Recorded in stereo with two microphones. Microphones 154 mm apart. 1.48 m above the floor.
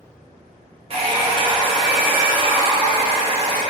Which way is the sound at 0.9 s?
40° right (ahead or behind).